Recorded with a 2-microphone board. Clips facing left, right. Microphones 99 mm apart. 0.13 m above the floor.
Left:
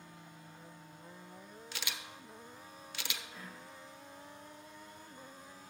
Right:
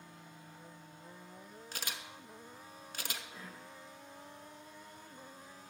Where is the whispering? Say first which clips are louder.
Even; 25° right (ahead or behind), 4 m.